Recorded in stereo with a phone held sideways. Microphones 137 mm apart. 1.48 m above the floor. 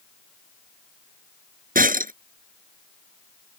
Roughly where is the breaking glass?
Right.